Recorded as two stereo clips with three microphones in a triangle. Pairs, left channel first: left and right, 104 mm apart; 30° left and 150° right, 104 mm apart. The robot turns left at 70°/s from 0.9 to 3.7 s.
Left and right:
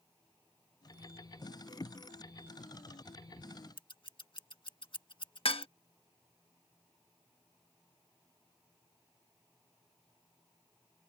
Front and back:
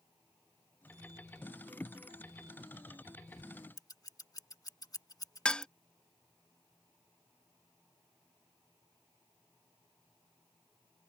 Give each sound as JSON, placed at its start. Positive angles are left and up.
{"t": 3.8, "sound": "scissors", "azimuth_deg": 70}
{"t": 5.5, "sound": "dishes clattering", "azimuth_deg": 110}